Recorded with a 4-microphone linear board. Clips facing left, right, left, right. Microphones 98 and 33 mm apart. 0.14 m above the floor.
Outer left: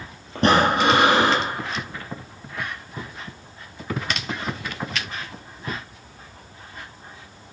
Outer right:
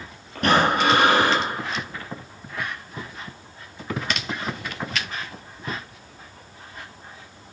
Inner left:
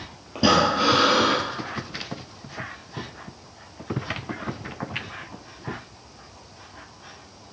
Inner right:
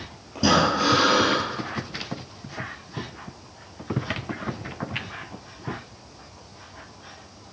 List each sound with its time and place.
0.3 s breathing: 30° left (ahead or behind), 1.5 m